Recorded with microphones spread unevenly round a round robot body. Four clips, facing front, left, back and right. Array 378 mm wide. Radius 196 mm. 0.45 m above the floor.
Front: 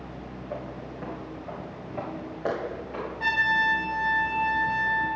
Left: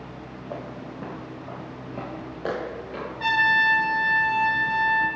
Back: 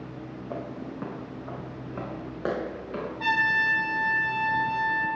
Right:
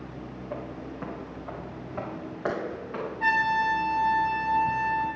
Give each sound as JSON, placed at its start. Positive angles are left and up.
{"t": 0.5, "sound": "footsteps", "azimuth_deg": 165, "distance_m": 1.3}
{"t": 3.2, "sound": "a trumpet", "azimuth_deg": 145, "distance_m": 4.5}